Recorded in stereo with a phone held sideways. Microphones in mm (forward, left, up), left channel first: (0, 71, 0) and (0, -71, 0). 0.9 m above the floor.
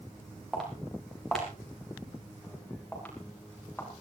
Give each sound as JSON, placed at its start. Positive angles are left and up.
{"t": 0.5, "sound": "footsteps", "side_deg": 0, "distance_m": 9.0}